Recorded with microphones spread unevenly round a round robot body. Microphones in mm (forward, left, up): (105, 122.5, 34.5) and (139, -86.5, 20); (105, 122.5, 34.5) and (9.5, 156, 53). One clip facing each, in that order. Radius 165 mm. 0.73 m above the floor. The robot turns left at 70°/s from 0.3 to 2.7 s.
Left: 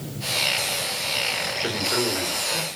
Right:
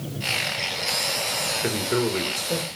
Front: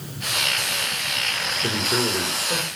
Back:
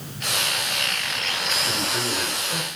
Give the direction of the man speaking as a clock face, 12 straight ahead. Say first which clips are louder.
Right 3 dB, front 7 dB; 1 o'clock.